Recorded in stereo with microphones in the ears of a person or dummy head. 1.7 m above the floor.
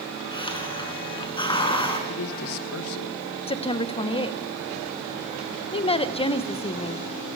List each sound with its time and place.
0.3 s a hiss: 20° left (ahead or behind), 4 m
2.1 s a man speaking: 75° left (ahead or behind), 1.8 m
3.5 s a woman speaking: 25° left (ahead or behind), 1.4 m